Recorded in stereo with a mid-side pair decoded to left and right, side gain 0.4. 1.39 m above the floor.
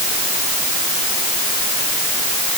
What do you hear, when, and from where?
Only background noise.